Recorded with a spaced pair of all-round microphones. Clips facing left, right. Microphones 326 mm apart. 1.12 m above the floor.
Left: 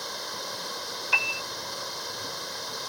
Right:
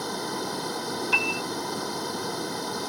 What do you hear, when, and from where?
0.0 s running water: 65° right (ahead or behind)
1.1 s a piano: 50° right (ahead or behind)